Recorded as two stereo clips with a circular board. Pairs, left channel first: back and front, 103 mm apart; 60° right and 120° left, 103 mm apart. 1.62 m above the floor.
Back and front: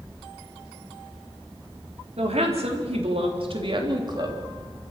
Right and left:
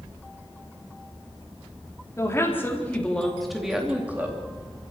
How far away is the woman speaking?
About 4.5 m.